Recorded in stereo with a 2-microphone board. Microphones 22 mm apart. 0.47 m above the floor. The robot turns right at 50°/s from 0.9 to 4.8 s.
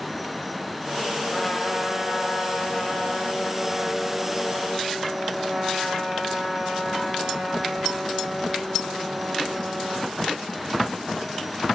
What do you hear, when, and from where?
1.3 s a trumpet: 35° left, 6 m; by 10.2 s 150° right, 6 m